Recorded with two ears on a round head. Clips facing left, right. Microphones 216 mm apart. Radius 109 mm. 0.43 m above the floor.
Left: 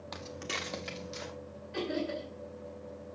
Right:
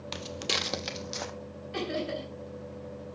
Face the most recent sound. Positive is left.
turn(degrees=-50)  # may be behind; listen again after turning